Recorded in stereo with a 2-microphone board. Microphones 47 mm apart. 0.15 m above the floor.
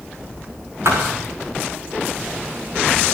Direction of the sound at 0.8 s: 70° right (ahead or behind).